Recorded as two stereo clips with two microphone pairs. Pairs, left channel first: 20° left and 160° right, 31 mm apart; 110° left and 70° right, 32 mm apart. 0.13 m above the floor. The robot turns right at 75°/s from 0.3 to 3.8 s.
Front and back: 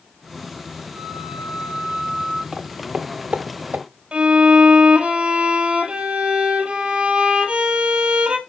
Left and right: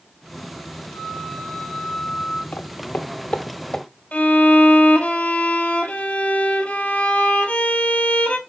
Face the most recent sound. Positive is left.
turn(degrees=150)